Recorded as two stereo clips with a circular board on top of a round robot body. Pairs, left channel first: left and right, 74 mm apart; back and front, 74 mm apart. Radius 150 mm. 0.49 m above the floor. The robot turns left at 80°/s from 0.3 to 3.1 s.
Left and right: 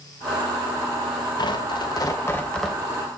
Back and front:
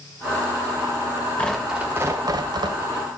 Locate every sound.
1.4 s tearing paper: 105° left, 2 m; by 2.8 s 5° right, 2 m